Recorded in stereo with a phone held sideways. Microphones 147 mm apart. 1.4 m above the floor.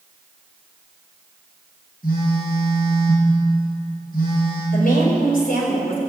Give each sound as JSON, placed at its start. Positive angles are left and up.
{"t": 2.0, "sound": "a phone buzzing", "side_deg": 75, "distance_m": 6.5}
{"t": 4.7, "sound": "a woman speaking", "side_deg": 75, "distance_m": 5.5}